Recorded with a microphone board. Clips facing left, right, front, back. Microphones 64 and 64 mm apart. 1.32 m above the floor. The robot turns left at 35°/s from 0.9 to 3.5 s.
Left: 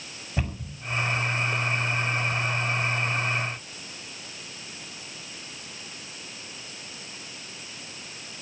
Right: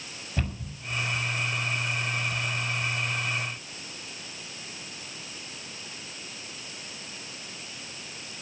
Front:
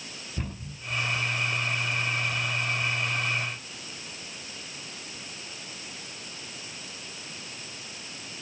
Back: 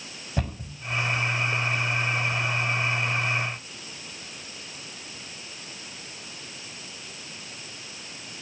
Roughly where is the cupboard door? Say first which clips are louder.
Left 1 dB, back 6 dB; behind.